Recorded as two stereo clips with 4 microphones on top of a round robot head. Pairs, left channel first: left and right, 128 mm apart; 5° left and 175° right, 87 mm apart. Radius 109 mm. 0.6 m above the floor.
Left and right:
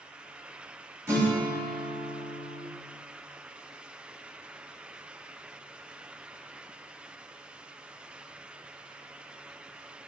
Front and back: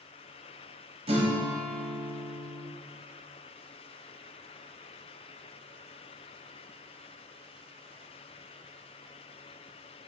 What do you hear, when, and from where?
1.1 s a guitar: 165° right, 1.4 m